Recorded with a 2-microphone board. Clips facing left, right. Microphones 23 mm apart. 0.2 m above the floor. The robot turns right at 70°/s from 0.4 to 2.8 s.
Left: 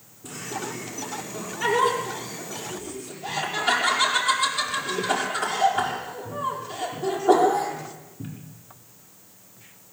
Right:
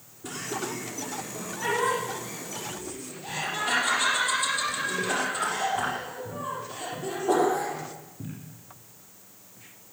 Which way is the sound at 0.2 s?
5° right (ahead or behind).